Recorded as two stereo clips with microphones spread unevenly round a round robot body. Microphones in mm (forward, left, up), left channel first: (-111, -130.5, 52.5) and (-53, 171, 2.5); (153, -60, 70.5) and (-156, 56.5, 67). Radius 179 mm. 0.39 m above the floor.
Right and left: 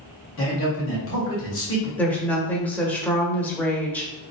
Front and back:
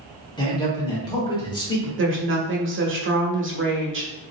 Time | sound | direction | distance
0.4 | a man speaking | 85° right | 1.6 m
2.0 | a woman speaking | 165° left | 1.1 m